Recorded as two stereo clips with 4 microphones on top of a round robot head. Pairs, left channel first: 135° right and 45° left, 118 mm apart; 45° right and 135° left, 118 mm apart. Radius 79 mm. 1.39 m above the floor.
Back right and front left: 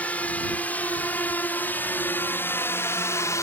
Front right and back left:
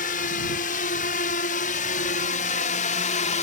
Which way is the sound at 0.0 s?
55° right.